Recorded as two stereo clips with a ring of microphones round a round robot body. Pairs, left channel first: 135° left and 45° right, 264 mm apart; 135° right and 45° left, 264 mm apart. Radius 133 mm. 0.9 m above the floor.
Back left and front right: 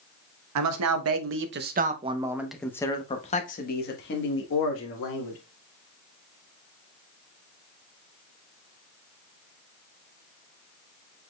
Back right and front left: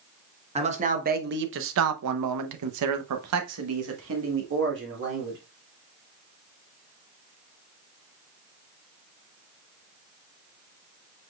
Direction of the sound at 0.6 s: 25° right.